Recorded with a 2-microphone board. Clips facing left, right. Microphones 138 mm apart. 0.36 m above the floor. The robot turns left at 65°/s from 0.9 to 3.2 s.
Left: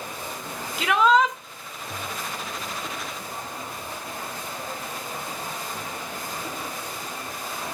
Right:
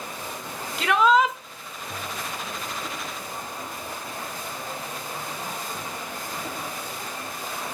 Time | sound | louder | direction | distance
0.8 | a shout | even | centre (ahead or behind) | 1.3 m